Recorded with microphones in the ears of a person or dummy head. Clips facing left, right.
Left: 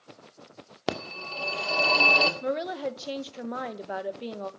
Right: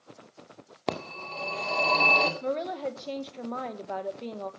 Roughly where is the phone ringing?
Centre.